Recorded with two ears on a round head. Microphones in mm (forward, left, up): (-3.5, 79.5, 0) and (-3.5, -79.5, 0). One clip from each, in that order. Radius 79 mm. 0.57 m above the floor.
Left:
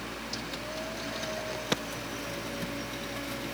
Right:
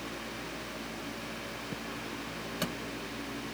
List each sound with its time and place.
Only background noise.